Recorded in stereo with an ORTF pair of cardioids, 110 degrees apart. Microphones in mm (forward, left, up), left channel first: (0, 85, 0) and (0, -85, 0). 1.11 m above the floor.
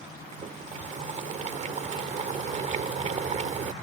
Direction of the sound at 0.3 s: 45° right.